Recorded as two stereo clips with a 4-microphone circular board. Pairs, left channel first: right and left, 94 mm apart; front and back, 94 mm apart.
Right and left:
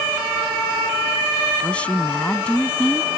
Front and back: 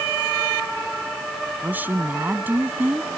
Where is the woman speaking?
145° right.